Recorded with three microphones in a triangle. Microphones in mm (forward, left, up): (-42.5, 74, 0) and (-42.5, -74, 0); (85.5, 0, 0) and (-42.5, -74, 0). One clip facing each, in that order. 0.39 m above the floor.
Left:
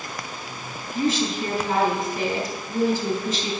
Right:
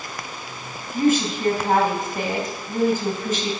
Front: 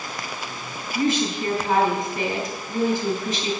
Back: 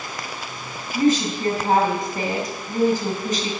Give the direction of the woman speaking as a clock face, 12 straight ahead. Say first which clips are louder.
Right 4 dB, back 4 dB; 4 o'clock.